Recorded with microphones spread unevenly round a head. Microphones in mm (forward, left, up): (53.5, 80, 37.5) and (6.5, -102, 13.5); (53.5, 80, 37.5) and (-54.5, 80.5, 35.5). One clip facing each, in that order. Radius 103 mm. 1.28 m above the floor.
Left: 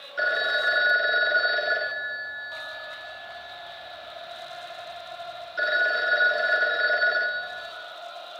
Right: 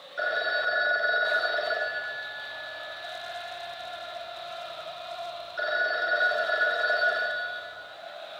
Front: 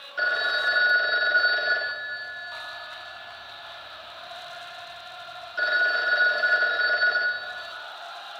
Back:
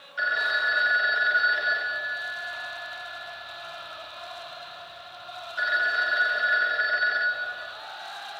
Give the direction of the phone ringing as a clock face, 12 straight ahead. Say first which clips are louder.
Left 1 dB, front 1 dB; 11 o'clock.